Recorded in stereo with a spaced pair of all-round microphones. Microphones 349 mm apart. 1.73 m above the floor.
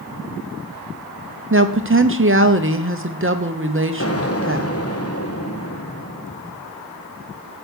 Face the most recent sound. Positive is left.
turn(degrees=40)  # may be behind; listen again after turning